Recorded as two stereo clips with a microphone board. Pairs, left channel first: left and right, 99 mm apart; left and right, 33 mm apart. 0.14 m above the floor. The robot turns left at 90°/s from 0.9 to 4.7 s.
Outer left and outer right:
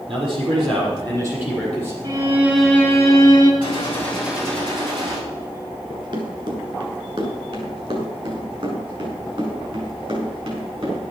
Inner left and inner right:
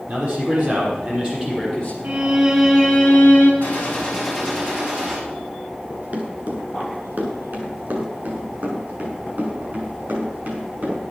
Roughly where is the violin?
Behind right.